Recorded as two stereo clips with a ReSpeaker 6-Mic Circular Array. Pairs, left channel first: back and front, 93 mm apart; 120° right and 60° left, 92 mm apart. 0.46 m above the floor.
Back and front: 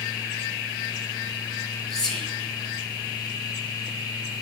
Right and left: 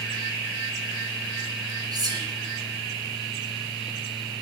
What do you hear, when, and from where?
1.9 s whispering: 85° left, 1.7 m